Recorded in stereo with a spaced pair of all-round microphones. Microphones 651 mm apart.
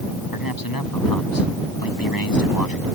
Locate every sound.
0.3 s a man speaking: 30° left (ahead or behind)